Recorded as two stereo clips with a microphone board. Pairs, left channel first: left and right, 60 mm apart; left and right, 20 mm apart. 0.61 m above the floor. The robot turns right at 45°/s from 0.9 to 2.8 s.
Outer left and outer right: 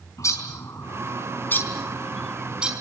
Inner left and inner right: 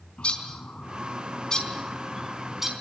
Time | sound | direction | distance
0.2 | a bird | 60° left (ahead or behind) | 4 m